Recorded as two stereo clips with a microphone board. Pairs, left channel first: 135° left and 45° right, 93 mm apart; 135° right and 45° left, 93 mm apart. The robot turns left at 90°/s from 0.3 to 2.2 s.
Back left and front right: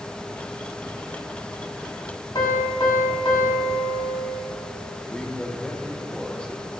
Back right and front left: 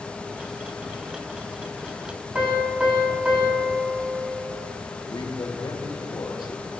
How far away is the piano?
About 2 m.